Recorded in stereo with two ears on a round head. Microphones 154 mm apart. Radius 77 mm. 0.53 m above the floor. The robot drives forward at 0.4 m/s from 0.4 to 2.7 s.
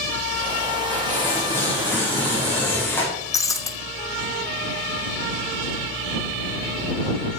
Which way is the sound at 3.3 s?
20° left (ahead or behind).